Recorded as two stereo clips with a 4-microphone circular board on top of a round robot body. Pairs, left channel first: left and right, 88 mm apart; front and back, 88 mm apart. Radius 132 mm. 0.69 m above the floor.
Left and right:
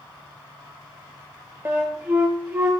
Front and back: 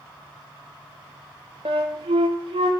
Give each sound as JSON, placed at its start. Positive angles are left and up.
{"t": 1.6, "sound": "a flute", "azimuth_deg": -155, "distance_m": 0.5}